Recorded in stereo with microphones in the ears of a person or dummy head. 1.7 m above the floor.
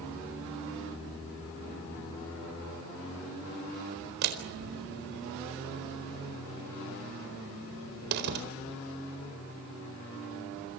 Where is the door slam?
55° right (ahead or behind), 4 m.